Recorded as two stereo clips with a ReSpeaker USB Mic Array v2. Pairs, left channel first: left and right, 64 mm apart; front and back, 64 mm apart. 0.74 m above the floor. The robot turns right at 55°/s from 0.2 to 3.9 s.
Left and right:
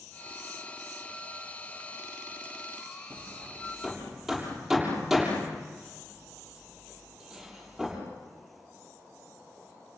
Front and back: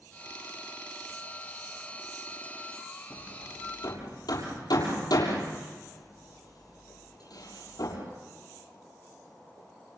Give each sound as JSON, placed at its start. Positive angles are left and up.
{"t": 3.1, "sound": "hammering", "azimuth_deg": -45, "distance_m": 7.0}